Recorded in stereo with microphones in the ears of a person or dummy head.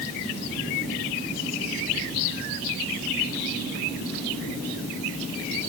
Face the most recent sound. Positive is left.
No sound to turn to.